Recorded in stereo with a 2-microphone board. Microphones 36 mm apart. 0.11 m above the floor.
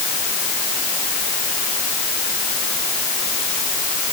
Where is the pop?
I don't hear a pop.